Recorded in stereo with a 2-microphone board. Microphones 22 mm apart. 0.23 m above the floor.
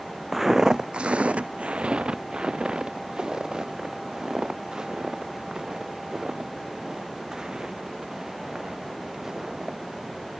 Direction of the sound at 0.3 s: 5° right (ahead or behind).